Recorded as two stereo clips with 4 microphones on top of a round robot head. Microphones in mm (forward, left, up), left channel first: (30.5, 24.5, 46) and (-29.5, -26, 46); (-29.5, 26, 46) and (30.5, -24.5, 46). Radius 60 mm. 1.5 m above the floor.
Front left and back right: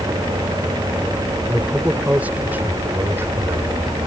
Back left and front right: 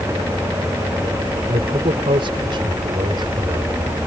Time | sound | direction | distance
1.5 | a man speaking | 60° right | ?